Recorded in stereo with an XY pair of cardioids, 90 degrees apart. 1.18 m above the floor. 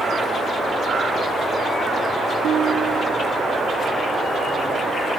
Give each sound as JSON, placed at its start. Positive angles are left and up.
{"t": 2.4, "sound": "a guitar", "azimuth_deg": -60, "distance_m": 1.0}